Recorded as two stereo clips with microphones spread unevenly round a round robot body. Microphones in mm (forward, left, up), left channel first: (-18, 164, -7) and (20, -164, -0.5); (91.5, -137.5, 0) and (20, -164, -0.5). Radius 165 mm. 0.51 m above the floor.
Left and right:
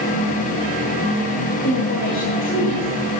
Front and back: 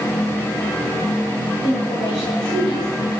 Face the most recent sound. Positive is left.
turn(degrees=45)